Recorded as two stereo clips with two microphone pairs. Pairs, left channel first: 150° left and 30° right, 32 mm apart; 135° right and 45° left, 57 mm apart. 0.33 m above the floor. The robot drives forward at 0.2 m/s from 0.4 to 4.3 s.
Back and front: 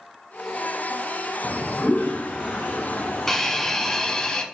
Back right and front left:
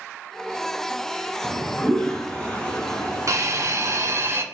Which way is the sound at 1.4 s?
145° left.